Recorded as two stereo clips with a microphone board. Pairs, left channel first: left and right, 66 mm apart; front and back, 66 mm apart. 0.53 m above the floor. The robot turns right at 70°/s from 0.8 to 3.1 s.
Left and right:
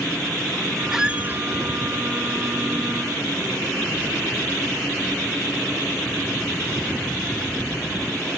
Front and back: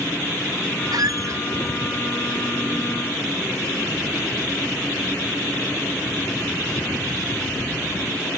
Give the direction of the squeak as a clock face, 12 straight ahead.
6 o'clock.